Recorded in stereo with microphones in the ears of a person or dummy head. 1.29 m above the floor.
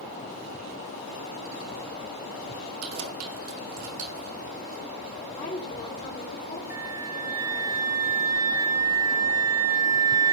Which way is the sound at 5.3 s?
40° left (ahead or behind).